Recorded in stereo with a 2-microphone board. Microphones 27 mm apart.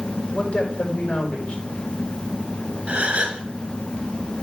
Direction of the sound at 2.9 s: 55° right (ahead or behind).